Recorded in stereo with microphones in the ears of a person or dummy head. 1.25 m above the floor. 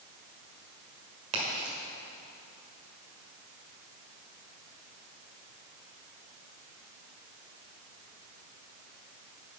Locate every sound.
1.3 s a crack: 35° right (ahead or behind), 1.4 m